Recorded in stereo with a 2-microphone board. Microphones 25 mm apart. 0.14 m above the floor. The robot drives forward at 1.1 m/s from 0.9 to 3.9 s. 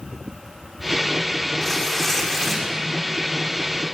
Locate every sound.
1.6 s tearing paper: 10° left (ahead or behind), 5 m